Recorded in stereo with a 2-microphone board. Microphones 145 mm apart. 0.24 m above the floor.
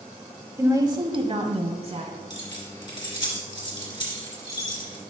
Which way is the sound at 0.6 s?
20° right (ahead or behind).